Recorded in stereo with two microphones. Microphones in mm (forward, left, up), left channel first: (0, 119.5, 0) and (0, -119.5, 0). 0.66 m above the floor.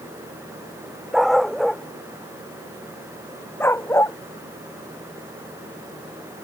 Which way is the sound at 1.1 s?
Centre (ahead or behind).